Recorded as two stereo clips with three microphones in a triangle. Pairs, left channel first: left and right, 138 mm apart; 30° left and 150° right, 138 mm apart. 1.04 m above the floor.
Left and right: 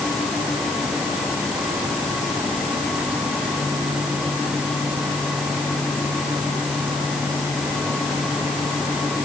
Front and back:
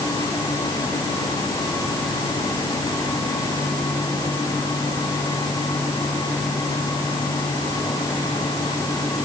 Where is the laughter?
No laughter in this recording.